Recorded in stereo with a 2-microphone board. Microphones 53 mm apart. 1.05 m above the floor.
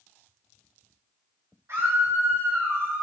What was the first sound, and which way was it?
A scream, 60° right (ahead or behind).